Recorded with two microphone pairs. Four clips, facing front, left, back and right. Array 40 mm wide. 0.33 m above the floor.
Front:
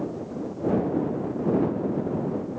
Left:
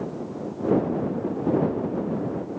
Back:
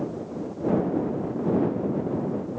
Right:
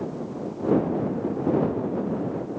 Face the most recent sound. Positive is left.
No sound to turn to.